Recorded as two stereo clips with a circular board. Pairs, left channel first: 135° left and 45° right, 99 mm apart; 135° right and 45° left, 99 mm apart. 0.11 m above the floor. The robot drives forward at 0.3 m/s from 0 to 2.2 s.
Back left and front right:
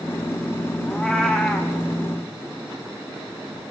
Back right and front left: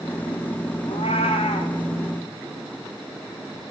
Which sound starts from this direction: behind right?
A cat meowing, at 0.9 s.